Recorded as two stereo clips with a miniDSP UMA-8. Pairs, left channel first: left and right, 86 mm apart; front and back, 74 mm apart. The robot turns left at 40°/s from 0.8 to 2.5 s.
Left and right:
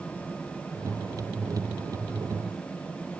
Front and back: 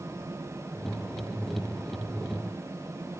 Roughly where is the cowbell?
I don't hear a cowbell.